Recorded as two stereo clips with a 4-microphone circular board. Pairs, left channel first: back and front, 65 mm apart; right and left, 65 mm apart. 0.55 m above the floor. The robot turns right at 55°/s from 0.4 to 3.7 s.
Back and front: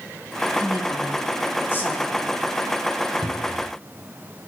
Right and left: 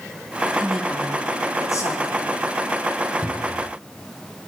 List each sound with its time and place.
0.6 s a woman speaking: 170° left, 4 m; by 2.3 s 95° right, 4 m
3.2 s a cupboard door: 20° left, 2.0 m; by 3.8 s 45° left, 2.0 m